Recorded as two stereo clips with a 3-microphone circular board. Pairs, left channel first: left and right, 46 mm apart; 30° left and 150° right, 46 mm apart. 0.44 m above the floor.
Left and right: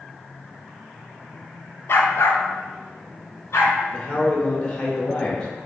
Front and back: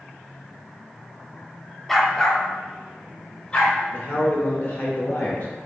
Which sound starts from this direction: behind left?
A dog barking, at 1.9 s.